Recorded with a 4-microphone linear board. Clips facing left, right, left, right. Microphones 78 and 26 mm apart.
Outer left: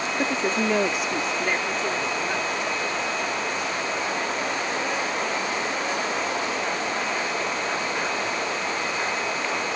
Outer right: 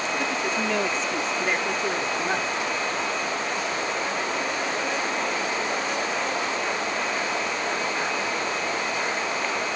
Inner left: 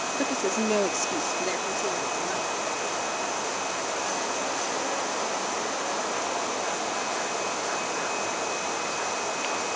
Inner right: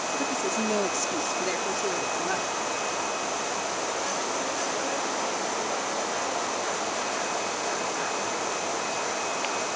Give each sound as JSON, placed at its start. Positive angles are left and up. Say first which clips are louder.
{"t": 0.2, "sound": "a woman speaking", "louder": "outer left 2 dB, inner left 3 dB", "side_deg": 30}